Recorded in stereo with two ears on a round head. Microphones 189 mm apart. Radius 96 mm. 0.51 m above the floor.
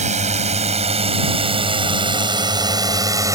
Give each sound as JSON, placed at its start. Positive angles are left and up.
{"t": 0.0, "sound": "a drone", "side_deg": -40}